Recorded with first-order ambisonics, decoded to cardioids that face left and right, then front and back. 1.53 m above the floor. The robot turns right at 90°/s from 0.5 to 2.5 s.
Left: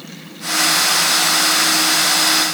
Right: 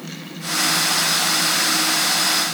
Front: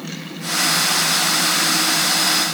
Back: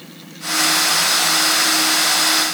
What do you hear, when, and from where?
Only background noise.